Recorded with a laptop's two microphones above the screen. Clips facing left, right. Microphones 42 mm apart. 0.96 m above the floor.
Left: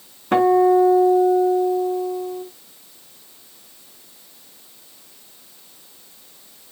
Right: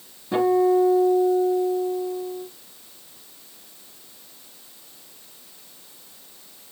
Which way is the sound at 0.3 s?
60° left (ahead or behind).